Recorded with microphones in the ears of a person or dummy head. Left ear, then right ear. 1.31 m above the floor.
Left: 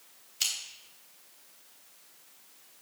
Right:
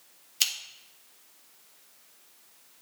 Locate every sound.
0.4 s scissors: 25° right (ahead or behind), 1.5 m